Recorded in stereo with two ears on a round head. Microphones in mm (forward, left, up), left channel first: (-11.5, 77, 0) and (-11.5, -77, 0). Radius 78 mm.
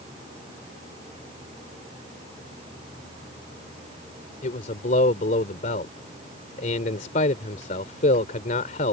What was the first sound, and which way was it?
A man speaking, 45° left (ahead or behind).